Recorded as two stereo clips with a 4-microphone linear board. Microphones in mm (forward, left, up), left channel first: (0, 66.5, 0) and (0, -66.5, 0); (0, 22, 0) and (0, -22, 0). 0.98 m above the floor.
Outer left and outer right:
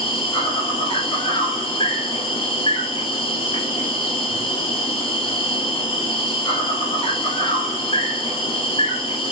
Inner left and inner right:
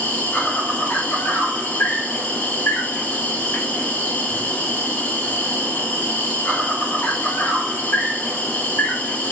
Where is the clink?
I don't hear a clink.